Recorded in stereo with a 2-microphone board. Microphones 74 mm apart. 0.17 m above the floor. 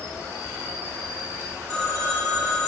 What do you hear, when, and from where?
0.0 s an insect: 35° right (ahead or behind), 1.5 m
1.7 s a phone ringing: 15° left (ahead or behind), 1.9 m